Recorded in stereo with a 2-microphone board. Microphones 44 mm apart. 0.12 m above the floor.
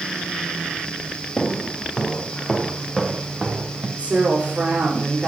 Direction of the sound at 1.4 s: 30° left (ahead or behind).